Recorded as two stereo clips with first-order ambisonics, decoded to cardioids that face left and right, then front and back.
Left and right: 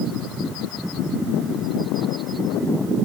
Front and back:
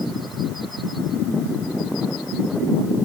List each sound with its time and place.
Only background noise.